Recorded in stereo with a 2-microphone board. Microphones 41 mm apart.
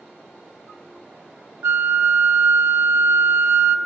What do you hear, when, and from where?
1.6 s a flute: 60° right (ahead or behind), 0.6 m